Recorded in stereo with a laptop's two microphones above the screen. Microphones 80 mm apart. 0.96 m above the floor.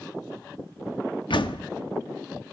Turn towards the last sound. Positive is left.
turn(degrees=85)